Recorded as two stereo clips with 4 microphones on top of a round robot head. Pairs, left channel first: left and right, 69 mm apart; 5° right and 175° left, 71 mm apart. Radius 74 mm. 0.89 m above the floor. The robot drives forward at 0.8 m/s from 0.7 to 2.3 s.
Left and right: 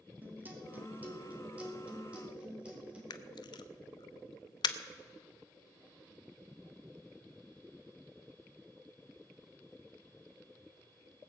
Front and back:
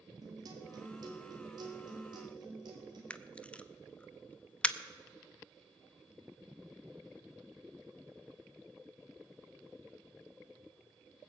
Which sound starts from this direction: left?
A camera shutter, at 3.1 s.